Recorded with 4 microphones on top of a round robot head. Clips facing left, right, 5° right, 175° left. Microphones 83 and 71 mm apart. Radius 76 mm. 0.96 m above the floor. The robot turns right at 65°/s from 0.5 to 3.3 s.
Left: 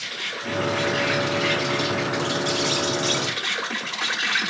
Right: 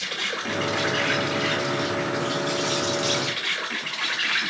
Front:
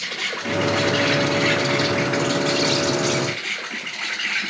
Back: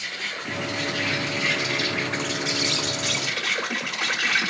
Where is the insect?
25° right, 2.5 m; by 4.5 s 155° left, 2.5 m.